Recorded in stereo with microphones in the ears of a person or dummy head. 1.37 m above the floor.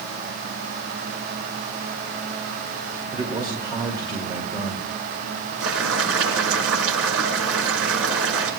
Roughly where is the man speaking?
Right.